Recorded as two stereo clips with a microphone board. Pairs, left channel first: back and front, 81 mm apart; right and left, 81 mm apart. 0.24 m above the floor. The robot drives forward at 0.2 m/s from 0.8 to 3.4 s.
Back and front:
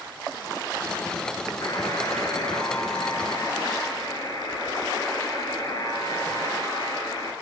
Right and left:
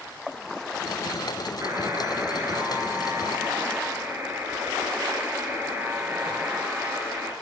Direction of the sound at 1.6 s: 140° left.